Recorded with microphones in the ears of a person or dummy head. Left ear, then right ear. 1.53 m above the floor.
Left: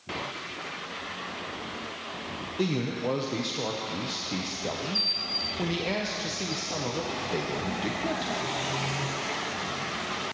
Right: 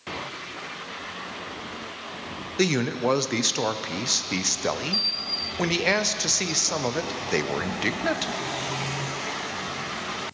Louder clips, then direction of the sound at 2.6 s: Right 7 dB; 55° right (ahead or behind).